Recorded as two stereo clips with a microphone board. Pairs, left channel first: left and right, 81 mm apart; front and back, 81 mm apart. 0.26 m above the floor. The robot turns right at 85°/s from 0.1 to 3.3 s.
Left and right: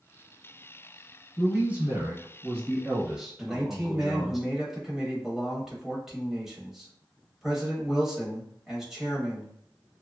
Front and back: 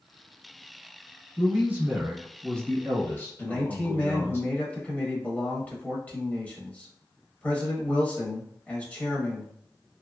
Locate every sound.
1.4 s a man speaking: 170° right, 1.0 m; by 4.4 s 5° right, 1.0 m
3.4 s a man speaking: 15° right, 0.9 m